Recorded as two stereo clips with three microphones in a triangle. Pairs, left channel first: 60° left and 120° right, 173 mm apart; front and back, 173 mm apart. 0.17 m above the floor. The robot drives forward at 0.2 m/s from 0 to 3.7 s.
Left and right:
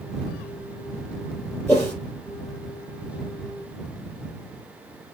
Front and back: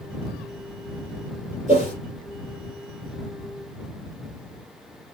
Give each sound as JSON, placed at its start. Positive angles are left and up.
{"t": 1.7, "sound": "a whoosh", "azimuth_deg": 140, "distance_m": 4.5}